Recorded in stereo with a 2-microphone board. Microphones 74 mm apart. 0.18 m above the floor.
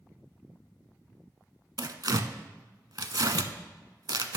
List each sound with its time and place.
1.8 s tearing paper: 60° right (ahead or behind), 0.5 m